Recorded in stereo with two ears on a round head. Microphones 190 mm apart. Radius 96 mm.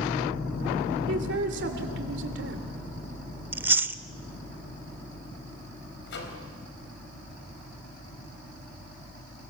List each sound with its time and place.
1.1 s a man speaking: 55° right (ahead or behind), 3 m
3.5 s chewing: 10° right (ahead or behind), 0.7 m
6.1 s a microwave: 60° left (ahead or behind), 4 m